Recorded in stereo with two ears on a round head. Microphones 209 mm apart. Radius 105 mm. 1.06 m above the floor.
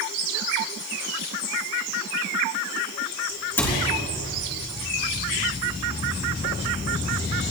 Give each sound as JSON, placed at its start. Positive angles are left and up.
{"t": 3.6, "sound": "a cupboard door", "side_deg": 10, "distance_m": 4.0}